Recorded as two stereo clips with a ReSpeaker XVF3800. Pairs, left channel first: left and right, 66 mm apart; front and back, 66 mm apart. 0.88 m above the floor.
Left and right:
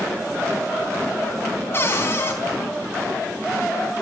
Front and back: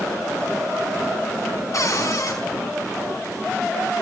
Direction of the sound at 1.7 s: 35° left.